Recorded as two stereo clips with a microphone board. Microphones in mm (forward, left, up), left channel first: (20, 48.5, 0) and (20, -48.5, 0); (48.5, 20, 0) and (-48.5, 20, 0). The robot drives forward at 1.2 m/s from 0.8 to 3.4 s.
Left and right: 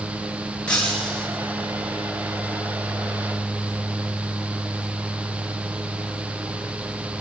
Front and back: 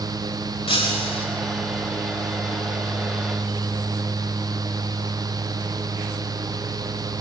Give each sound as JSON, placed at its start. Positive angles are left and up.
{"t": 0.7, "sound": "breaking glass", "azimuth_deg": 10, "distance_m": 9.0}